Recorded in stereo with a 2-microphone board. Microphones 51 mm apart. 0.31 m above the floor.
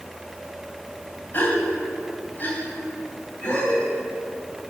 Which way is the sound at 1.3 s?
40° left (ahead or behind).